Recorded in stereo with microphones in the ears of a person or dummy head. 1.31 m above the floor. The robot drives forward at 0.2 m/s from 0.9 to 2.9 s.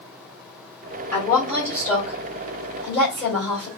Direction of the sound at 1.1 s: 20° left (ahead or behind).